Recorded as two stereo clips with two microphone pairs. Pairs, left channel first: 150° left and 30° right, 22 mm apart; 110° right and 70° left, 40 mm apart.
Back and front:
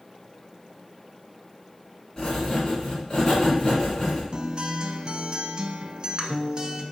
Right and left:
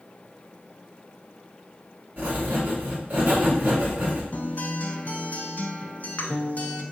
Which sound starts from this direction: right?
A guitar, at 4.3 s.